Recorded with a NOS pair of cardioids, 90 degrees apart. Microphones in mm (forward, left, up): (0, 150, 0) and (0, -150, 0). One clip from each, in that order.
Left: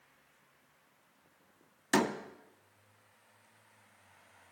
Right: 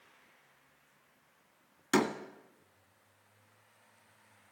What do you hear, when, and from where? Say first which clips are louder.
1.9 s a door slam: even; 5° left, 1.8 m